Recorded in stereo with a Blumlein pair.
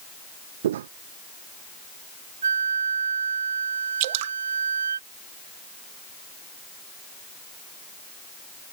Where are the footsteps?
60° right.